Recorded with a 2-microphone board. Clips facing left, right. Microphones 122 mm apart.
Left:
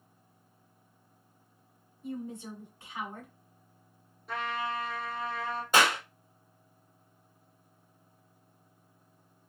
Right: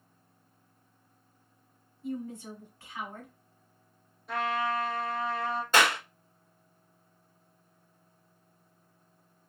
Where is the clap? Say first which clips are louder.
Even; 15° left (ahead or behind), 1.4 m.